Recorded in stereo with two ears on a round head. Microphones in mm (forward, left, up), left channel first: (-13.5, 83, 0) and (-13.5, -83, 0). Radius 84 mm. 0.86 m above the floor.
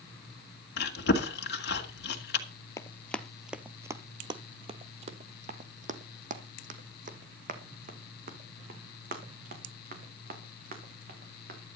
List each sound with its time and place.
0.8 s chewing: 60° left (ahead or behind), 2 m
2.8 s running footsteps: 15° left (ahead or behind), 0.9 m; by 11.6 s 50° right (ahead or behind), 4.5 m